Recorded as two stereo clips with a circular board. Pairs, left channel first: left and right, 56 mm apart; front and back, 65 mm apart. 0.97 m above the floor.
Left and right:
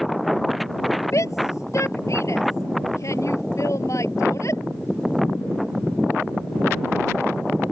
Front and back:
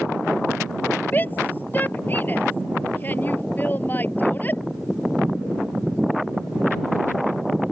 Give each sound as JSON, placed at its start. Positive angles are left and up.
{"t": 1.1, "sound": "a shout", "azimuth_deg": 60}